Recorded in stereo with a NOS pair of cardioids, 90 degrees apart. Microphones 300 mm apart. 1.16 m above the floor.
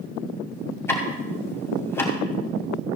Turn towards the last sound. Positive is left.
turn(degrees=10)